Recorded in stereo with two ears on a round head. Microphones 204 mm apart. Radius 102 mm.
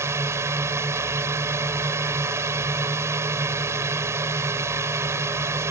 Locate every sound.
0.0 s a drone: 10° right (ahead or behind)